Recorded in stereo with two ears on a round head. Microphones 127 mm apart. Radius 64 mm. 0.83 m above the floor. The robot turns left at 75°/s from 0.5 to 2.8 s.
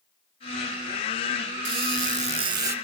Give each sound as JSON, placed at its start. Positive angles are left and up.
{"t": 1.6, "sound": "a squeak", "azimuth_deg": -85, "distance_m": 2.0}